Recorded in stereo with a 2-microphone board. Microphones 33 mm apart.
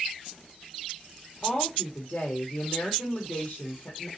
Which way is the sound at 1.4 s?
50° left (ahead or behind).